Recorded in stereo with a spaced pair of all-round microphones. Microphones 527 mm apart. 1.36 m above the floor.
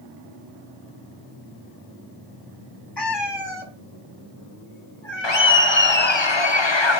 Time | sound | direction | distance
3.0 | a cat meowing | 50° left (ahead or behind) | 2 m
5.2 | laughter | 55° left (ahead or behind) | 1.1 m